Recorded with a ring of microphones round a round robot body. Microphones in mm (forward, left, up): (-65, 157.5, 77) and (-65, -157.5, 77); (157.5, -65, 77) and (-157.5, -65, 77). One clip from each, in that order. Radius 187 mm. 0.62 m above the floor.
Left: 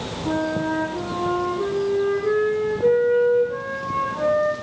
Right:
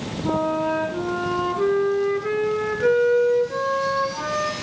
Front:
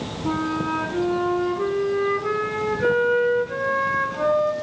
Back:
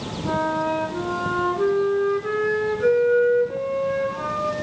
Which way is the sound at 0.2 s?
70° right.